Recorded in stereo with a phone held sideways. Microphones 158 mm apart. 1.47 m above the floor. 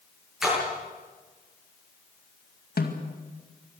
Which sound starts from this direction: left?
A snare drum, at 2.8 s.